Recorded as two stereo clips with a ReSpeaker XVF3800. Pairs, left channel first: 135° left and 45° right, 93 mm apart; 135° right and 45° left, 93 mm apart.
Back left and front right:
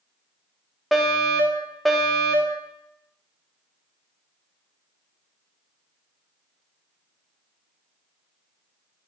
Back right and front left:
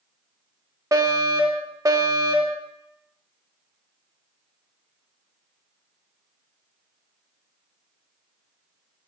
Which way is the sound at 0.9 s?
40° left.